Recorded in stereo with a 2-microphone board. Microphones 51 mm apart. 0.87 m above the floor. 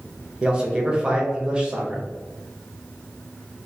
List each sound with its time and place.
0.4 s a man speaking: 20° right (ahead or behind), 0.6 m